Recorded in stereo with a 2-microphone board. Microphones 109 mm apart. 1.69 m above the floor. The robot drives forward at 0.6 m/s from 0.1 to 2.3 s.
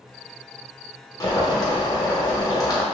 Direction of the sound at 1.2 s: 35° left (ahead or behind).